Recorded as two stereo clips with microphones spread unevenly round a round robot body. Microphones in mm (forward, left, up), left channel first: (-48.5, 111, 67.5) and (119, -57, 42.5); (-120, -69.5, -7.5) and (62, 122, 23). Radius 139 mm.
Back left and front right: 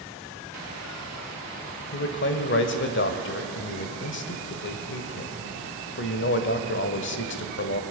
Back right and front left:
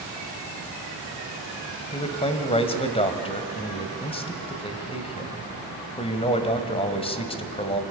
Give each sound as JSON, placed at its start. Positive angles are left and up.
{"t": 1.9, "sound": "a man speaking", "azimuth_deg": 165, "distance_m": 1.4}